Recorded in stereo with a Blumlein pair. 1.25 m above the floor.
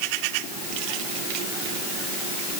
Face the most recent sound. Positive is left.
No sound to turn to.